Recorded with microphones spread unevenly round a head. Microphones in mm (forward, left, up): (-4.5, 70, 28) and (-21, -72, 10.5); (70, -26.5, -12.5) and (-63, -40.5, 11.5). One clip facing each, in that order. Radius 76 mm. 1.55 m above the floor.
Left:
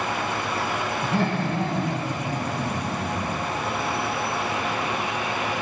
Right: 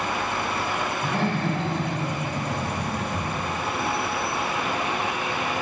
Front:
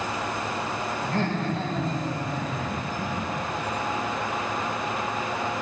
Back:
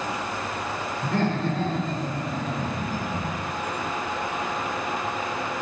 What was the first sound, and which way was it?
Laughter, 170° left.